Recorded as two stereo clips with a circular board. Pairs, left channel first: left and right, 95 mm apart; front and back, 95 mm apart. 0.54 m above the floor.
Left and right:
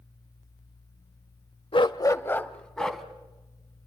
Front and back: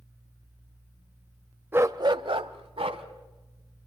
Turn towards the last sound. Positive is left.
turn(degrees=180)